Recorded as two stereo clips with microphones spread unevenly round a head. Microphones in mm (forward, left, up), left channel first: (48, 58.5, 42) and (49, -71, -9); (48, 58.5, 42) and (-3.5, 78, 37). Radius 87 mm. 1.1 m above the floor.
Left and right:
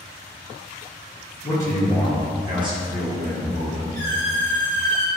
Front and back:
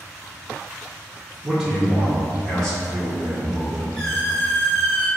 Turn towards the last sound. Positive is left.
turn(degrees=-85)